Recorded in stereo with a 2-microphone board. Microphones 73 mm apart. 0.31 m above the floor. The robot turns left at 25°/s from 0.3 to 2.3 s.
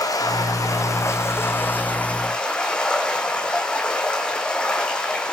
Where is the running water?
60° left, 3 m; by 5.3 s 10° left, 3 m.